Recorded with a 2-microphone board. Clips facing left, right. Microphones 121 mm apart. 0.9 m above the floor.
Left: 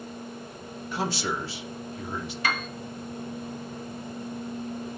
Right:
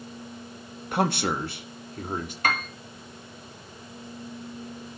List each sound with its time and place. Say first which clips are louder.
0.9 s a man speaking: right 4 dB; 60° right (ahead or behind), 1.1 m; by 2.3 s 50° right (ahead or behind), 1.9 m
2.4 s a piano: right 2 dB; 50° right (ahead or behind), 1.5 m